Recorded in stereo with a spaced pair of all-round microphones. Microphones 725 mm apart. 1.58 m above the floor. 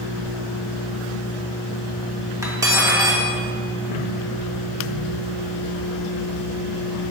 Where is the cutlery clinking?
5° right (ahead or behind), 0.7 m.